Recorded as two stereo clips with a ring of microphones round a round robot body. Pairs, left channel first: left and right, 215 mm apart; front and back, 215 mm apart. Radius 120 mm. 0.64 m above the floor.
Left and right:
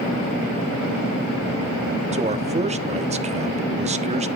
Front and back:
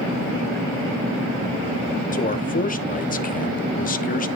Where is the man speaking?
40° right, 1.1 m.